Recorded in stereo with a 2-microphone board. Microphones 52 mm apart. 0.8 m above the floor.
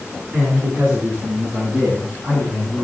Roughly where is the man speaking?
Right.